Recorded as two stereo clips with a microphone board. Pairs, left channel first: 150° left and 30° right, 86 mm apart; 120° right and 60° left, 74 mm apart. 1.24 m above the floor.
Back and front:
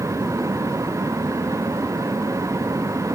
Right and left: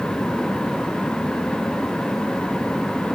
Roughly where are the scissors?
I don't hear scissors.